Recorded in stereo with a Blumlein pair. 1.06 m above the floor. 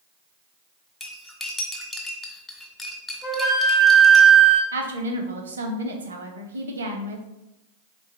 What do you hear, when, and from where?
1.0 s cutlery clinking: 10° left, 1.3 m
3.2 s a flute: 20° left, 1.2 m
4.7 s a woman speaking: 70° right, 1.0 m